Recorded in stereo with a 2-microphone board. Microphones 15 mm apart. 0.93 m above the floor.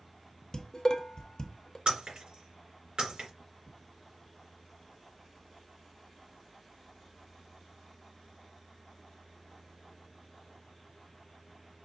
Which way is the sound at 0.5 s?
40° left (ahead or behind).